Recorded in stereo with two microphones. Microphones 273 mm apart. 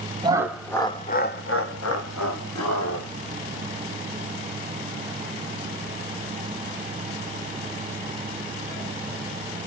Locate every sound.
0.2 s laughter: 15° right (ahead or behind), 0.7 m; by 3.1 s 80° left, 1.5 m